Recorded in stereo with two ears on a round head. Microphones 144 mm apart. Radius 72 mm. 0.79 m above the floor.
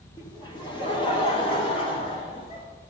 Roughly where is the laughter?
Left.